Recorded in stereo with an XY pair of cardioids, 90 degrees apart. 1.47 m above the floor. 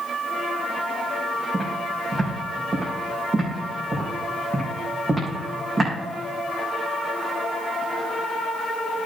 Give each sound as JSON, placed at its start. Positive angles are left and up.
{"t": 1.5, "sound": "footsteps", "azimuth_deg": -40, "distance_m": 5.0}